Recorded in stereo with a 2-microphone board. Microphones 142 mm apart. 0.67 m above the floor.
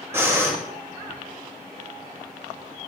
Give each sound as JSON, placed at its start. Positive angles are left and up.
{"t": 0.1, "sound": "breathing", "side_deg": -15, "distance_m": 1.0}